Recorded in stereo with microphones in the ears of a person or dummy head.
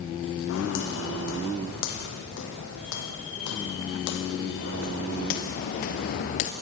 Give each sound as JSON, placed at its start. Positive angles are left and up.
{"t": 0.5, "sound": "footsteps", "side_deg": 75, "distance_m": 5.5}